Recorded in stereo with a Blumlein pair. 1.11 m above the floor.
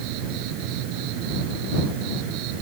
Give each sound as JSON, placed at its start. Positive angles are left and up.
{"t": 0.0, "sound": "an insect", "azimuth_deg": -40}